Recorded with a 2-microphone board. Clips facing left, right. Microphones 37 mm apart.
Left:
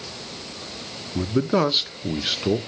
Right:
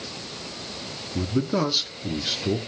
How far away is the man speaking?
About 0.6 m.